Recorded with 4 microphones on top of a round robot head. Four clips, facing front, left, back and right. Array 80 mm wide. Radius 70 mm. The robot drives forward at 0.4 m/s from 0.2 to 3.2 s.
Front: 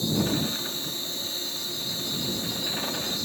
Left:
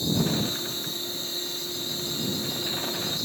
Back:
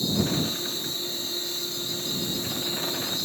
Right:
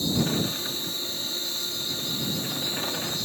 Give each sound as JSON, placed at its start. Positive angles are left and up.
{"t": 0.0, "sound": "an insect", "azimuth_deg": -45, "distance_m": 0.9}